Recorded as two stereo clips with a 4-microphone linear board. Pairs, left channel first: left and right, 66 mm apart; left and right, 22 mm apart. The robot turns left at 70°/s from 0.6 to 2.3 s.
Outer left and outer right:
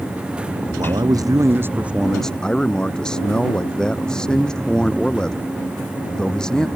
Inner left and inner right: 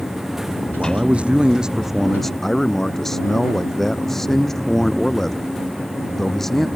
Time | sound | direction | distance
0.8 | a man speaking | 85° right | ?